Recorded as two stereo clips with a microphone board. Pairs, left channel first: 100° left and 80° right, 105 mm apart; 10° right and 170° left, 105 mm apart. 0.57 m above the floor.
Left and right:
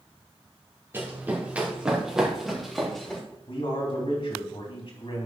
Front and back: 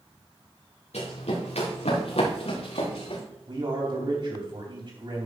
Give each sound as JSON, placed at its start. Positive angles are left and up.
{"t": 0.9, "sound": "running footsteps", "azimuth_deg": -10, "distance_m": 3.5}
{"t": 3.5, "sound": "a man speaking", "azimuth_deg": 130, "distance_m": 3.0}